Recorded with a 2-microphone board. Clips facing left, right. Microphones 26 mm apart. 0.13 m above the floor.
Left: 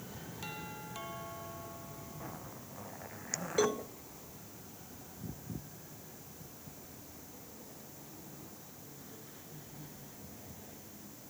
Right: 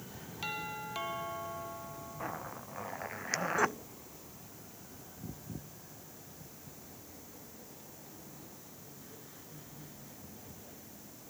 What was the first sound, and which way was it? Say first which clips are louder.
A doorbell: right 7 dB; 30° right (ahead or behind).